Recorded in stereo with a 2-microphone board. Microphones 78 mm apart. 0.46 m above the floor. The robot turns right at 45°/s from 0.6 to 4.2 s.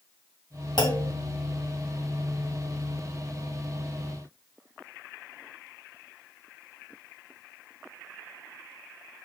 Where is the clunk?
75° left (ahead or behind), 2 m.